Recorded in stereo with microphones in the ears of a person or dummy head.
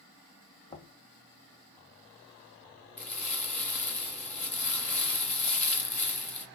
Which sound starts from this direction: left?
Knocking, at 0.7 s.